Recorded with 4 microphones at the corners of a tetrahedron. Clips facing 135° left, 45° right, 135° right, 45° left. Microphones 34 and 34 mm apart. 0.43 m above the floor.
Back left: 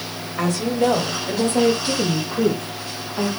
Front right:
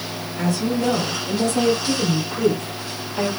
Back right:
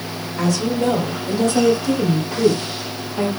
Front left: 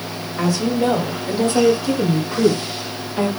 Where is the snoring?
No snoring in this recording.